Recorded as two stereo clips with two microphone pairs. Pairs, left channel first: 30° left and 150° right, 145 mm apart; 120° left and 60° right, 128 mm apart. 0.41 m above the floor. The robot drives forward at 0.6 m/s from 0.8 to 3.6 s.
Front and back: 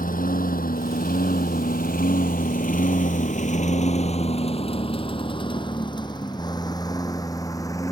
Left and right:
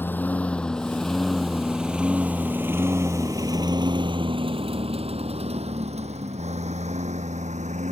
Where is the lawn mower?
45° left; by 7.9 s 35° right.